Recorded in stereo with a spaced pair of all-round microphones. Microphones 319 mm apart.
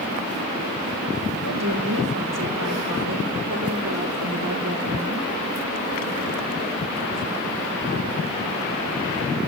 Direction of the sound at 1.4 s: 80° right.